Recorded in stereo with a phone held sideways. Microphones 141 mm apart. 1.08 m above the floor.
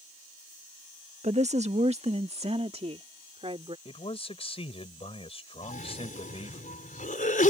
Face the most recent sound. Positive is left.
turn(degrees=70)  # may be behind; listen again after turning